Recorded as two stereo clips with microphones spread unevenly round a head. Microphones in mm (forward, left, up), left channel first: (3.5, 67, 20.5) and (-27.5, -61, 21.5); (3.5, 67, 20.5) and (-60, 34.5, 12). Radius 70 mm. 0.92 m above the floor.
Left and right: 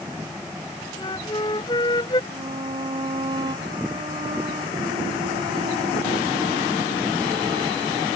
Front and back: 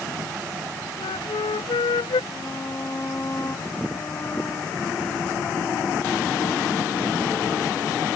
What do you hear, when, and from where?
1.0 s a flute: 15° left
2.3 s a violin: 45° right